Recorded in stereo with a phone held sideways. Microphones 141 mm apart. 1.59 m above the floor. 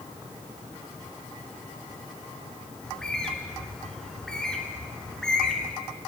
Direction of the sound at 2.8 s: 5° left (ahead or behind).